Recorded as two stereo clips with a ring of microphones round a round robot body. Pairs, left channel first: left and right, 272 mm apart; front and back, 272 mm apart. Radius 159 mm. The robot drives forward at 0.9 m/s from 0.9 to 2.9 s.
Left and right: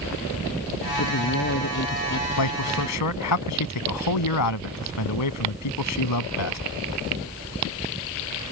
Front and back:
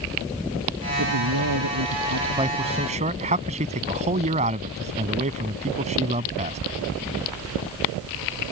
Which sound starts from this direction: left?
A man speaking, at 2.4 s.